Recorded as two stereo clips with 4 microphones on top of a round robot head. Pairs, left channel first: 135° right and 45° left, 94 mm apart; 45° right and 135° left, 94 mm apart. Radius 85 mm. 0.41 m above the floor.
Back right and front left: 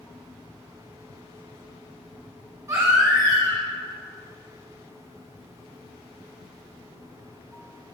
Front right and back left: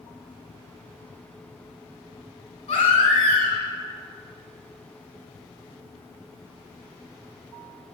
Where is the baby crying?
20° right, 1.7 m.